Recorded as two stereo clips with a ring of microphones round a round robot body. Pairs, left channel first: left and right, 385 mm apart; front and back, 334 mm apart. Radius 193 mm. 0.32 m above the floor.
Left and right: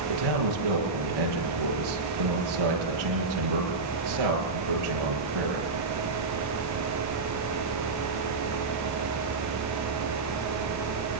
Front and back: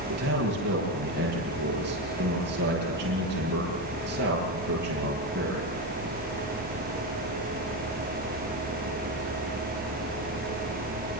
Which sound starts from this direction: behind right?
A man speaking, at 0.1 s.